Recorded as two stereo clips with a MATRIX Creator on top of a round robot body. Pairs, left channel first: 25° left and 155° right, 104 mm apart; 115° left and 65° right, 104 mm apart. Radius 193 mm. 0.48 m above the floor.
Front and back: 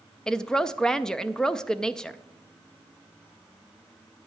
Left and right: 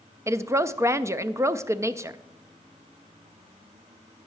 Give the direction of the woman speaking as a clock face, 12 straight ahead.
2 o'clock.